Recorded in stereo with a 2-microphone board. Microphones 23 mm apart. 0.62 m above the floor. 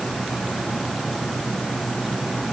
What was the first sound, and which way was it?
Only background noise.